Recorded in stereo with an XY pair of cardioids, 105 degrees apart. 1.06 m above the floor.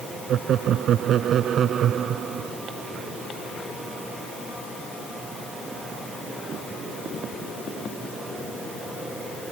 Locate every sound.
0.3 s laughter: 65° right; by 2.5 s 55° right